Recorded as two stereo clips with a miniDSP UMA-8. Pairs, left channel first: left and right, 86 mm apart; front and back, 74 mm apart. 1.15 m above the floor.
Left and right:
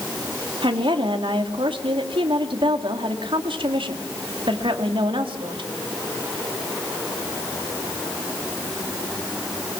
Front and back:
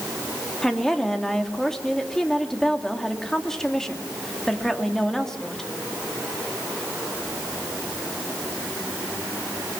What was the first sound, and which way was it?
A woman speaking, 85° right.